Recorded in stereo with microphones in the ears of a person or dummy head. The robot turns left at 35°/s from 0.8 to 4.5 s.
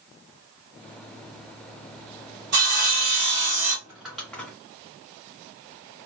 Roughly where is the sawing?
Behind right.